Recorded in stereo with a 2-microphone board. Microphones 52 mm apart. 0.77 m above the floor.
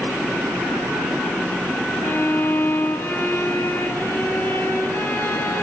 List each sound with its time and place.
2.0 s a violin: 45° left (ahead or behind), 1.5 m